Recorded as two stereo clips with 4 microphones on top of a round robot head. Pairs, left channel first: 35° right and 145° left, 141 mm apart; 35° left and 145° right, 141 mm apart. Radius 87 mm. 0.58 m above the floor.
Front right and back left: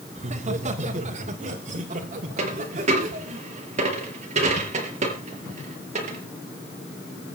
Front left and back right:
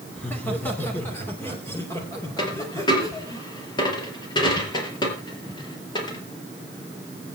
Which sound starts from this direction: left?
A dropped coin, at 2.4 s.